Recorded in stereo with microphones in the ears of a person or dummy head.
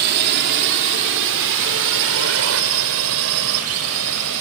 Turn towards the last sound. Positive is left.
turn(degrees=-80)